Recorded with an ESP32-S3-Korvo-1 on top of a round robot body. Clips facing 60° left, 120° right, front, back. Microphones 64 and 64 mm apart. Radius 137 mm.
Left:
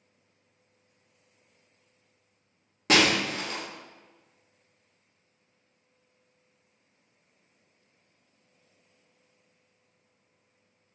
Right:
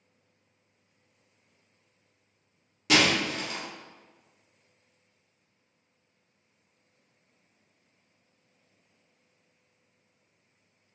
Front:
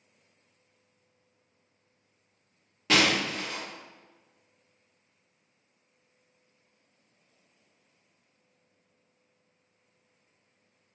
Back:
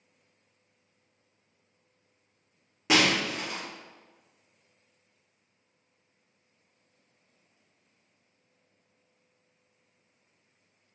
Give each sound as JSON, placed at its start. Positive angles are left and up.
{"t": 2.9, "sound": "breaking glass", "azimuth_deg": 105, "distance_m": 0.9}